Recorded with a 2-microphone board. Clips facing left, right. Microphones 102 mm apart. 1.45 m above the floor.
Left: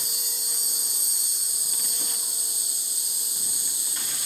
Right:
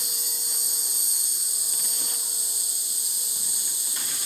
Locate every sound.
0.0 s an insect: 55° left (ahead or behind), 1.6 m